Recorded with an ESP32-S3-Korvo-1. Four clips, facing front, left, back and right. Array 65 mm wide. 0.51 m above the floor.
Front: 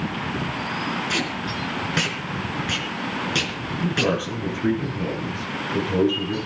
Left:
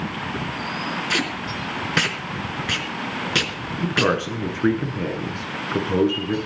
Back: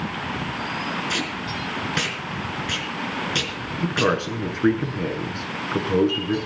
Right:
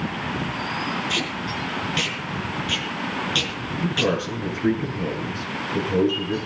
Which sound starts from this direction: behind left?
A man speaking, at 3.8 s.